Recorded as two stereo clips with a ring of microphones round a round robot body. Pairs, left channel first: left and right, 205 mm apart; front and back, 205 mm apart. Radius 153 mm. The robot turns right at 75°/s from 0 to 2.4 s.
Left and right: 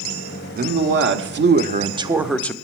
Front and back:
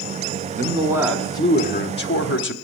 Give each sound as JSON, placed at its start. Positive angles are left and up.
{"t": 0.6, "sound": "a man speaking", "azimuth_deg": -135, "distance_m": 1.1}